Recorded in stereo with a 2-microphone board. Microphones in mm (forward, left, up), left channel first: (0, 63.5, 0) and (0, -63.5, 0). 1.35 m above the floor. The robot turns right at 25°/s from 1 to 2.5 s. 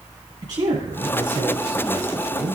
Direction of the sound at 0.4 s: 135° right.